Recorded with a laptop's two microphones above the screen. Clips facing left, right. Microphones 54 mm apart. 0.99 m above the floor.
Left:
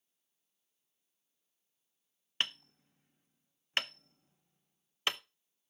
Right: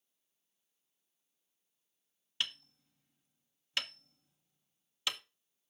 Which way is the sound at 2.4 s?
40° left (ahead or behind).